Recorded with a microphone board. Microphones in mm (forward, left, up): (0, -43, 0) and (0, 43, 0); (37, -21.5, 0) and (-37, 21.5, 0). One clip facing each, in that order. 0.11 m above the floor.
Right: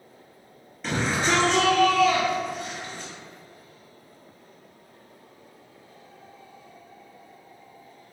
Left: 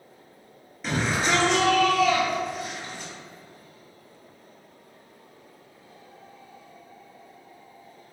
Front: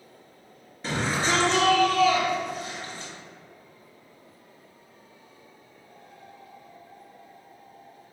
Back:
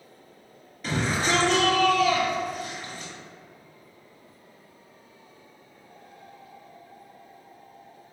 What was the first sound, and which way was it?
A shout, 5° left.